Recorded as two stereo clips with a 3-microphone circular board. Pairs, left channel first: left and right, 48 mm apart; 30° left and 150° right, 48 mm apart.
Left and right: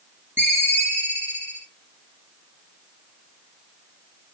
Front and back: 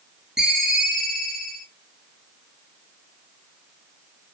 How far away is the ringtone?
About 1.6 m.